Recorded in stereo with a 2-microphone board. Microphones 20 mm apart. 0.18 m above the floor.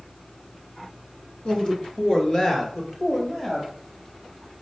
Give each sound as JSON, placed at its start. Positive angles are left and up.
{"t": 1.4, "sound": "a man speaking", "side_deg": 50, "distance_m": 1.7}